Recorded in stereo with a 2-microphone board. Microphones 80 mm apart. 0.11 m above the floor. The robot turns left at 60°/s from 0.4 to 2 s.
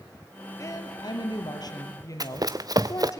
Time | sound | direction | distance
0.6 | a woman speaking | 135° left | 3 m
2.2 | running footsteps | 50° right (ahead or behind) | 0.8 m